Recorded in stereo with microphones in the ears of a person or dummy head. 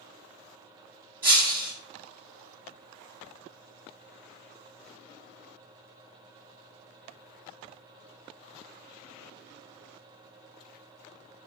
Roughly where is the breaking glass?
Centre.